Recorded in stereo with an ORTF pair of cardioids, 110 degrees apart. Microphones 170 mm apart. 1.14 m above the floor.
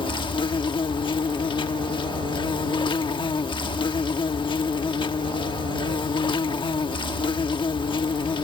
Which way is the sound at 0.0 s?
30° left.